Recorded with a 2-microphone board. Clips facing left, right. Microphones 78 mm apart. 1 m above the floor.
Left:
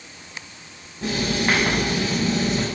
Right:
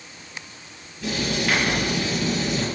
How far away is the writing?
About 5.5 m.